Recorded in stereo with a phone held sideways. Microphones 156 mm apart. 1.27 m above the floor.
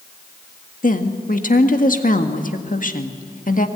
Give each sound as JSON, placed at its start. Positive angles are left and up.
{"t": 0.8, "sound": "a woman speaking", "side_deg": 60, "distance_m": 1.6}